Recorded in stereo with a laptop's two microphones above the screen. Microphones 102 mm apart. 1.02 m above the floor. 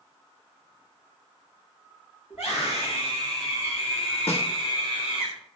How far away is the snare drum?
About 1.4 m.